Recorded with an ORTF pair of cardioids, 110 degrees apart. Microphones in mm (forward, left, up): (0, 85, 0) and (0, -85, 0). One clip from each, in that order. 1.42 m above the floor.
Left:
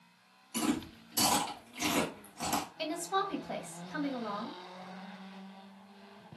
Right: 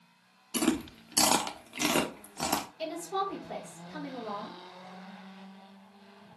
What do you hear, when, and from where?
0.5 s chewing: 45° right, 0.8 m
2.8 s a woman speaking: 35° left, 1.3 m